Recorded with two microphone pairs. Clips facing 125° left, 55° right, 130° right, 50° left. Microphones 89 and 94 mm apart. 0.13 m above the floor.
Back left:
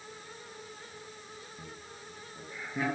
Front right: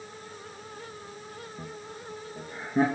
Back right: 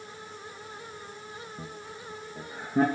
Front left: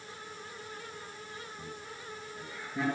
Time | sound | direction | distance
1.6 | laughter | 105° right | 3 m